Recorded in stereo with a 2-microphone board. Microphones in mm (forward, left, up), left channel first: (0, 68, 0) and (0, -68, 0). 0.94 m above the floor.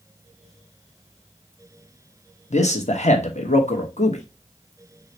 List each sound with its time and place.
2.5 s a man speaking: 55° left (ahead or behind), 0.9 m